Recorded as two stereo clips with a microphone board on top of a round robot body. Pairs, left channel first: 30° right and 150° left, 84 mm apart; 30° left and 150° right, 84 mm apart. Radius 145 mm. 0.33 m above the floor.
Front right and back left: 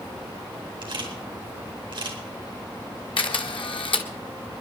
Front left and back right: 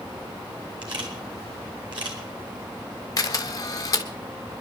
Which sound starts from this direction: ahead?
A camera shutter, at 3.2 s.